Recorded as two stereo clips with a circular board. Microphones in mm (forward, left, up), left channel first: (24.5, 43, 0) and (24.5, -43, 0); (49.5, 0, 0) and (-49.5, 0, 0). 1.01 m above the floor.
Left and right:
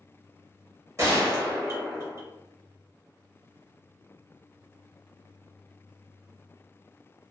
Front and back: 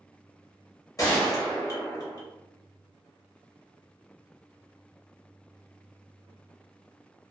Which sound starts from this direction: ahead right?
A gunshot, at 1.0 s.